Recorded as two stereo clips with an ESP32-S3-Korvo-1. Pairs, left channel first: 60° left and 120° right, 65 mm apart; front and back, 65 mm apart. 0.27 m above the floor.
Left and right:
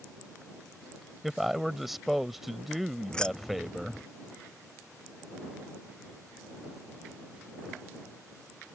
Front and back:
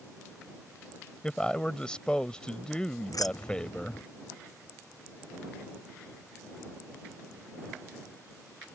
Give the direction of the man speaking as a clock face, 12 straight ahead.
1 o'clock.